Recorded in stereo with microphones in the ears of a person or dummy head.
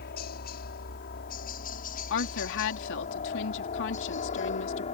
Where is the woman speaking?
65° left (ahead or behind).